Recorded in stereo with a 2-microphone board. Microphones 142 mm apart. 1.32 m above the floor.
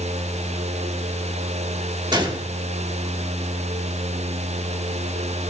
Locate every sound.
2.1 s a gunshot: 30° right (ahead or behind), 1.2 m